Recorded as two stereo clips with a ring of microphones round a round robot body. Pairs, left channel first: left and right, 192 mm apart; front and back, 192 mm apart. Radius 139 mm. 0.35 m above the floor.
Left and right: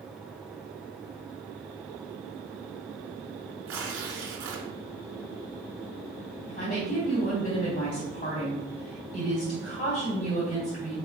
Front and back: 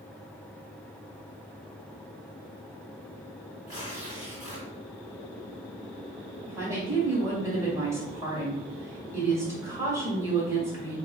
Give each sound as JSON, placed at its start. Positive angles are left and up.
{"t": 3.7, "sound": "tearing paper", "azimuth_deg": -100, "distance_m": 1.3}
{"t": 6.5, "sound": "a woman speaking", "azimuth_deg": 110, "distance_m": 2.0}